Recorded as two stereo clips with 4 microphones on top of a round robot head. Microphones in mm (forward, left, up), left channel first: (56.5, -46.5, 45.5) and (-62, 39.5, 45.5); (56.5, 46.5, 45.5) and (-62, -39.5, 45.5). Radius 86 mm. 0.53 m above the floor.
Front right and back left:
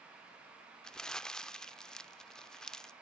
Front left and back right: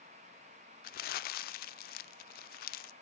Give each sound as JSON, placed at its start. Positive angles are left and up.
{"t": 0.8, "sound": "crumpling", "azimuth_deg": 50, "distance_m": 0.5}